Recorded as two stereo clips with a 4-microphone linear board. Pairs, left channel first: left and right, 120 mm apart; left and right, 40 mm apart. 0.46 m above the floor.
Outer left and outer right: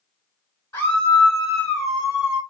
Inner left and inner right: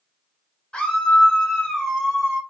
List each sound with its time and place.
0.7 s a scream: 25° left (ahead or behind), 1.4 m; by 2.4 s 10° right (ahead or behind), 1.4 m